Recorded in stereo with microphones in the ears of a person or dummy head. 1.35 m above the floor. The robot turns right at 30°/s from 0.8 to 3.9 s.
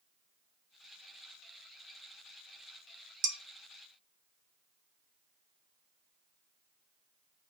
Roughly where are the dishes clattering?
Right.